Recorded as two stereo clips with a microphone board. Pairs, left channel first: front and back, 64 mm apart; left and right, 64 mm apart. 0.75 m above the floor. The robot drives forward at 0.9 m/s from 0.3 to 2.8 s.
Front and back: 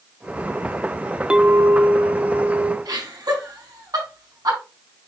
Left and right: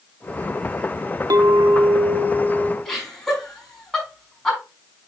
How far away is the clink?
About 0.7 m.